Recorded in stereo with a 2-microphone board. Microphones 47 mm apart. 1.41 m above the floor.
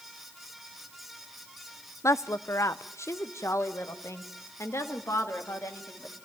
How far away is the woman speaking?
About 0.5 m.